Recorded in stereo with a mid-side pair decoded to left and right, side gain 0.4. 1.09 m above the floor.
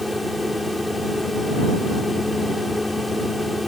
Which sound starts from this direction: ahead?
A fan, at 0.0 s.